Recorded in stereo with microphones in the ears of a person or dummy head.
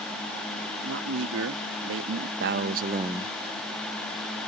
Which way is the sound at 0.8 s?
75° right (ahead or behind).